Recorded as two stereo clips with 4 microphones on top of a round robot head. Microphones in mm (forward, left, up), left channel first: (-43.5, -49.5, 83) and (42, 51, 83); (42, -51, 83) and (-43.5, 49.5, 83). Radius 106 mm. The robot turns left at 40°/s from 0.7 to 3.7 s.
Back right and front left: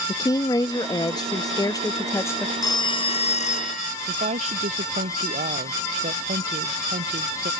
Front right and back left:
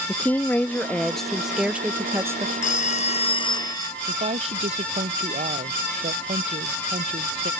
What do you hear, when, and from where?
0.1 s a woman speaking: 115° right; by 2.5 s 175° left
2.6 s a phone ringing: 70° right; by 3.9 s 110° right
4.1 s a woman speaking: 90° left